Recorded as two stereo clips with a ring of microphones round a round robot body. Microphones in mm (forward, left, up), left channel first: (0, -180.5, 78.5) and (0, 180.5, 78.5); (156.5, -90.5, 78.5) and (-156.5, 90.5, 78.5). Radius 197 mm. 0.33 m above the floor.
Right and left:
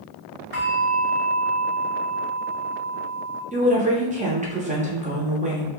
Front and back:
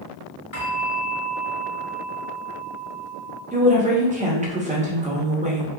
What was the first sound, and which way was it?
A bell, 10° left.